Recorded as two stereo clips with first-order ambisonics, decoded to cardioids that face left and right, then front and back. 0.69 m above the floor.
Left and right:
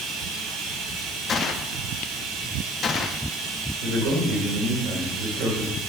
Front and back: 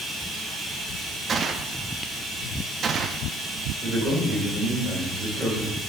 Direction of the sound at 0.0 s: 85° right.